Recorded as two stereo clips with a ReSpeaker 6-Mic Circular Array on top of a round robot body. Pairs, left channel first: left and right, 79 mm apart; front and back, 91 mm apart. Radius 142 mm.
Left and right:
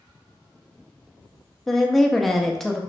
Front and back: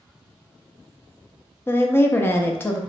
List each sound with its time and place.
1.7 s a woman speaking: 5° left, 0.6 m